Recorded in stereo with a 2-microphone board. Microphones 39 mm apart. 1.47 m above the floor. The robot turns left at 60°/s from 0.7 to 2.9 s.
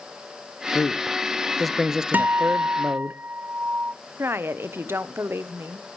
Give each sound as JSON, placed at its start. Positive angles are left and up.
{"t": 0.8, "sound": "a man speaking", "azimuth_deg": 60, "distance_m": 0.6}
{"t": 2.1, "sound": "a guitar", "azimuth_deg": -65, "distance_m": 0.6}
{"t": 4.2, "sound": "a woman speaking", "side_deg": -70, "distance_m": 0.9}